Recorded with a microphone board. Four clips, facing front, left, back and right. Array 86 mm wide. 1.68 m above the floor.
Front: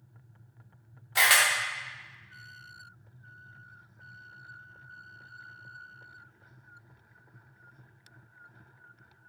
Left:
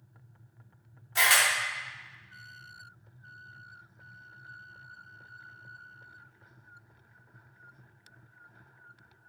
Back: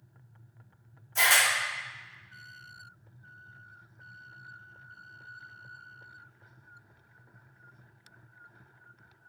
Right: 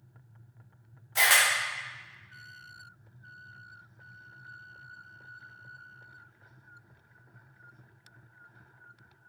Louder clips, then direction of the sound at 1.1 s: Even, front 1 dB; straight ahead.